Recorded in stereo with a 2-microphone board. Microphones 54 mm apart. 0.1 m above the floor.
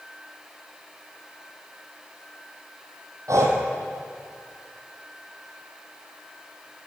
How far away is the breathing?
About 1.8 m.